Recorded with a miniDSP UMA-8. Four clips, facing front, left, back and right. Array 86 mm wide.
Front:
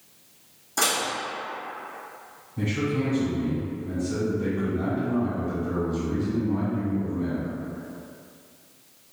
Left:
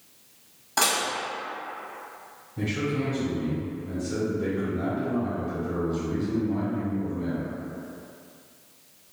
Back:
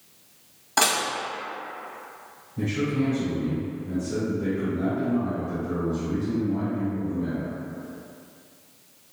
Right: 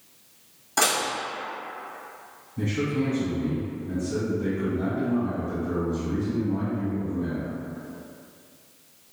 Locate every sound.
0.8 s dishes clattering: 170° left, 1.1 m
2.6 s a man speaking: 75° left, 1.2 m